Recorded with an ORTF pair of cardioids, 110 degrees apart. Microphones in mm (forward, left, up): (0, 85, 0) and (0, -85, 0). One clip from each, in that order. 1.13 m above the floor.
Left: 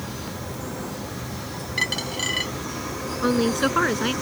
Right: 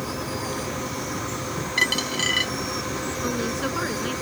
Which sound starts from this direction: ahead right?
A dropped coin, at 1.8 s.